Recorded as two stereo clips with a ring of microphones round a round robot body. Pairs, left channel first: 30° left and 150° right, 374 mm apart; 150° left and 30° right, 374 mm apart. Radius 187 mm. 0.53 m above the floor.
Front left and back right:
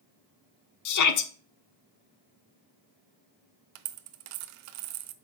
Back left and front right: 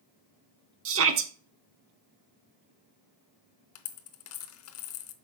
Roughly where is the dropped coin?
Behind right.